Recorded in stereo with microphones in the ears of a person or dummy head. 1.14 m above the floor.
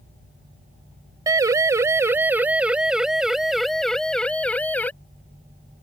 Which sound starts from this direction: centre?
A siren, at 1.3 s.